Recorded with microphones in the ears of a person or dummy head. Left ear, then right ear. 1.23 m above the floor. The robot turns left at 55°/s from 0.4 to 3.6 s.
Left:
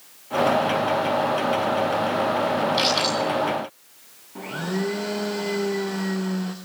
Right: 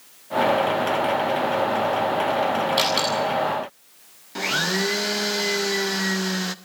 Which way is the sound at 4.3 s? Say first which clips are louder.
Right 7 dB; 50° right (ahead or behind).